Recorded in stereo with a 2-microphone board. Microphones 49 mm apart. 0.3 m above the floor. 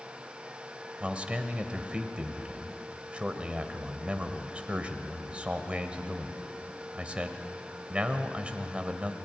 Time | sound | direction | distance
1.0 | a man speaking | 25° right (ahead or behind) | 1.5 m